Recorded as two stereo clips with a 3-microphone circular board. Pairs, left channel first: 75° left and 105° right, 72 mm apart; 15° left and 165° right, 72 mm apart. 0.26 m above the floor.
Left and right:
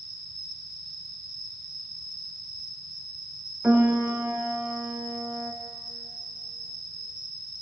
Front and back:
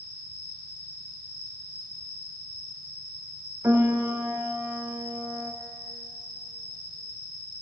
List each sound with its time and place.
0.0 s an insect: 170° left, 1.6 m
3.6 s a piano: 150° right, 0.6 m